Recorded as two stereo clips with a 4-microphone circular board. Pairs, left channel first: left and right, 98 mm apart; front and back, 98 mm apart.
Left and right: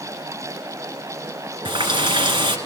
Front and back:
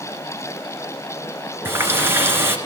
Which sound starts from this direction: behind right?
A running tap, at 1.6 s.